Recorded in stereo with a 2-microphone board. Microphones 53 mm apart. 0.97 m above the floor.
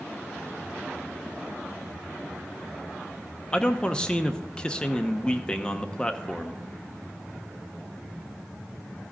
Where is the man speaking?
20° left (ahead or behind), 0.9 m.